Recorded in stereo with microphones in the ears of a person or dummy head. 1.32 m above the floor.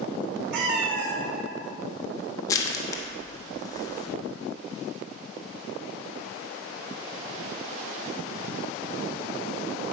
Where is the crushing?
15° left (ahead or behind), 1.1 m.